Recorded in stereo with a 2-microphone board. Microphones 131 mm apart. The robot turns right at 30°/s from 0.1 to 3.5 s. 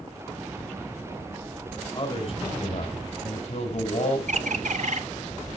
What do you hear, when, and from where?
1.9 s a man speaking: 50° left, 3 m; by 4.2 s 95° left, 3 m
4.3 s a bird: 65° right (ahead or behind), 0.8 m